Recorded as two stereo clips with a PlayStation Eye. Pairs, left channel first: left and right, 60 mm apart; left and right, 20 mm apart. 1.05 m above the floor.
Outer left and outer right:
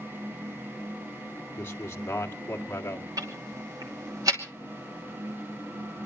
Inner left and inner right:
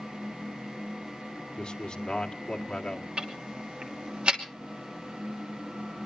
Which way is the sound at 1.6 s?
40° left (ahead or behind).